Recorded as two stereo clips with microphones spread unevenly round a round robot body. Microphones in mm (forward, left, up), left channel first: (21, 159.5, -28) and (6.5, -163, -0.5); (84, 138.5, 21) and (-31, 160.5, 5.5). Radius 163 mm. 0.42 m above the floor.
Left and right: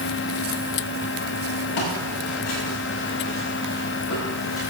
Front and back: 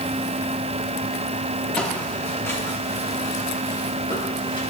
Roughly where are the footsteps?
Left.